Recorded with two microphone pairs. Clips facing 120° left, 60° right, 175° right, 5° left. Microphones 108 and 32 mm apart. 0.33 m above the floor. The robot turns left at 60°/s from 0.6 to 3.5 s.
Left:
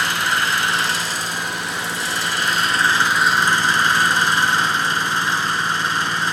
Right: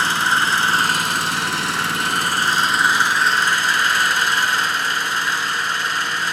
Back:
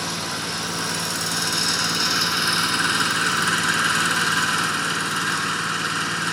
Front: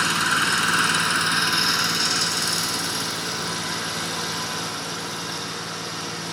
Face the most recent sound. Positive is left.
turn(degrees=-170)